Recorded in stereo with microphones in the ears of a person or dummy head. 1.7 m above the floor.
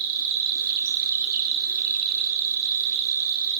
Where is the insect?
55° right (ahead or behind), 2.0 m.